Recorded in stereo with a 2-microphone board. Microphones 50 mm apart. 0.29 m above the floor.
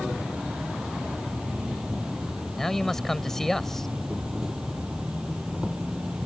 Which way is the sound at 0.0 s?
15° right (ahead or behind).